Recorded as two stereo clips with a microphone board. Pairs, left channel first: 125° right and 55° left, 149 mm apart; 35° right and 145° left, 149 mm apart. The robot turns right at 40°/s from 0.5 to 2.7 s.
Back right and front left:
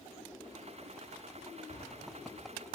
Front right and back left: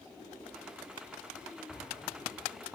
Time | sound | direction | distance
1.7 | an explosion | 110° right | 5 m